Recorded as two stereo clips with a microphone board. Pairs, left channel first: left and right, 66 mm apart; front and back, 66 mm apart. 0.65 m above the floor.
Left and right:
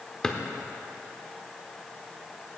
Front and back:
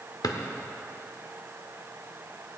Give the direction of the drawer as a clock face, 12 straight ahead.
12 o'clock.